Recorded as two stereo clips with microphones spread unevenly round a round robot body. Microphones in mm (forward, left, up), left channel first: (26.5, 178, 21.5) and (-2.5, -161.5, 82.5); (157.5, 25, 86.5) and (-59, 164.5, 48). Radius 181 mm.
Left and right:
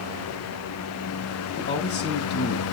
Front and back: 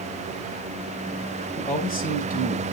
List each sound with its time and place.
1.6 s a man speaking: 25° left, 3.5 m